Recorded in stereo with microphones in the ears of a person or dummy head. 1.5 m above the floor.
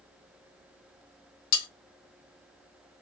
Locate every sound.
1.5 s cutlery clinking: 50° left (ahead or behind), 1.0 m